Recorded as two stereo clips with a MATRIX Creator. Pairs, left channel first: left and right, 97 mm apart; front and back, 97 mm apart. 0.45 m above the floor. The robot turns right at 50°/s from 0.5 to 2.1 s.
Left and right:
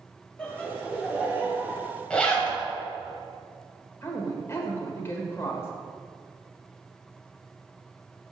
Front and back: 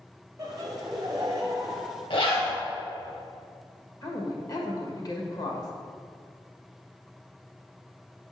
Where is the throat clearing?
I don't hear throat clearing.